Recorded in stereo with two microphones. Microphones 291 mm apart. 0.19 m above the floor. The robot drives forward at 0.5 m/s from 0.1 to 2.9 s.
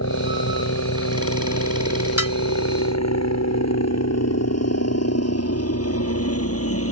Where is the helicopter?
60° left (ahead or behind); by 6.9 s 50° left (ahead or behind).